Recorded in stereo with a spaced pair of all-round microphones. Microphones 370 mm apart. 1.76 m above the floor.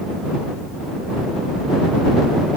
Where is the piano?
I don't hear a piano.